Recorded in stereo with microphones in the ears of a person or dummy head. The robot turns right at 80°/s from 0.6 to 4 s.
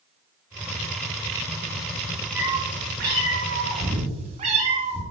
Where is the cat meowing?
170° right, 4 m; by 5.0 s 35° right, 4 m.